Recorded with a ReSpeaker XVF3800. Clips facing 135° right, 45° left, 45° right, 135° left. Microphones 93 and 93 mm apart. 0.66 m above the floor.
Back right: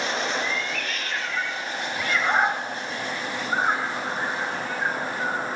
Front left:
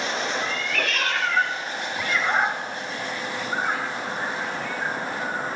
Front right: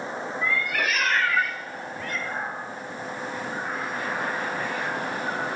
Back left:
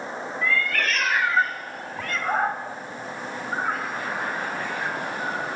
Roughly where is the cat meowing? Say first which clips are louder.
Front left 2 dB, back left 2 dB; ahead.